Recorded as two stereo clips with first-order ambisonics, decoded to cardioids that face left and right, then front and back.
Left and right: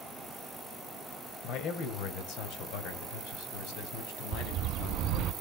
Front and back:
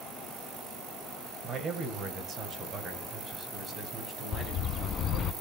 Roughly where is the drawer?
I don't hear a drawer.